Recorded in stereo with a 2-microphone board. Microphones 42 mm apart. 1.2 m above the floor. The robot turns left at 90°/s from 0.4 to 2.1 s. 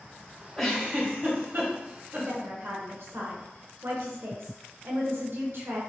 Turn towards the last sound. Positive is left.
turn(degrees=-65)  # may be behind; listen again after turning